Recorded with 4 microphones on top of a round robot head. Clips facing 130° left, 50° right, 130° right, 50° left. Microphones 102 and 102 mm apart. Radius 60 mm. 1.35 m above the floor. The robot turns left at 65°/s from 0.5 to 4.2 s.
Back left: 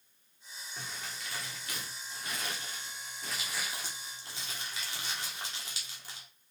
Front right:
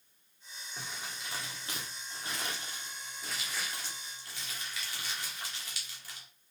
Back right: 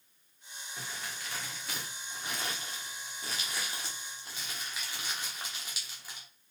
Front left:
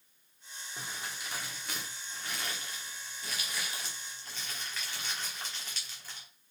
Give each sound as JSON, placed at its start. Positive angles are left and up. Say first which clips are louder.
{"t": 0.8, "sound": "crumpling", "louder": "even, even", "azimuth_deg": 25, "distance_m": 0.9}